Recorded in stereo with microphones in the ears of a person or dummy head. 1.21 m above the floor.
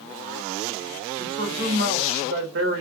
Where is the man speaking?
65° right (ahead or behind), 1.0 m.